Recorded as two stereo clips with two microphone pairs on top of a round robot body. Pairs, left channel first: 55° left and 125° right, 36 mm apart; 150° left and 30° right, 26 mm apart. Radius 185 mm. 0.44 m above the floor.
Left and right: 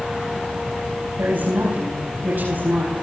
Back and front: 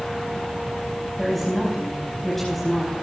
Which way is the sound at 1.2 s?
125° right.